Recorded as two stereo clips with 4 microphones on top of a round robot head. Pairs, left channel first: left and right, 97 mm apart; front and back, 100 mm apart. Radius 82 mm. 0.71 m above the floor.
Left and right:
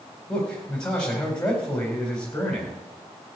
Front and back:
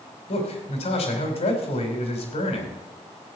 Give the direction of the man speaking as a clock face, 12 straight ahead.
12 o'clock.